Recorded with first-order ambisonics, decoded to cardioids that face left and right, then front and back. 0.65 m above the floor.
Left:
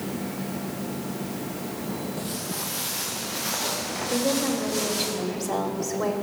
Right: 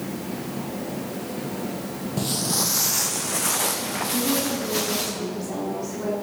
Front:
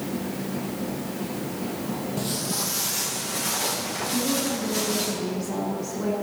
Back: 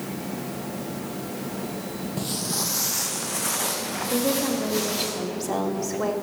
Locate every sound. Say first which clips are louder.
2.2 s footsteps: right 7 dB, back 2 dB; 90° right, 0.7 m; by 5.1 s 110° right, 3.5 m
4.1 s a woman speaking: left 2 dB, back 3 dB; 145° left, 1.7 m